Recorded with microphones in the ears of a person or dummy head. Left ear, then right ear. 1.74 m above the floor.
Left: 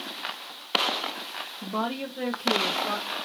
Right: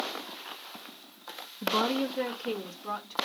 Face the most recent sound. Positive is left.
turn(degrees=-5)  # may be behind; listen again after turning